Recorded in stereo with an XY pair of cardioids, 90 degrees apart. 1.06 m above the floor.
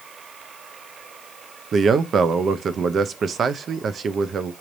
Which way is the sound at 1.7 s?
55° right.